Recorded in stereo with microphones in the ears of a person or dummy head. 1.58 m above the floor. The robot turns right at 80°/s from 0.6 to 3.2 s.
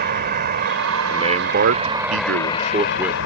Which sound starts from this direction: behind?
A man speaking, at 1.1 s.